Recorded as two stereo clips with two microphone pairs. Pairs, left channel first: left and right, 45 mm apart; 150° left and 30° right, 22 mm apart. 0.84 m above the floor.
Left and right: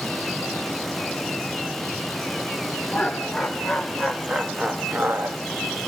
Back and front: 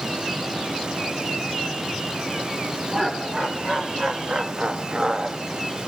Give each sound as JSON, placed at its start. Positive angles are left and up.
{"t": 2.9, "sound": "laughter", "azimuth_deg": 10, "distance_m": 2.0}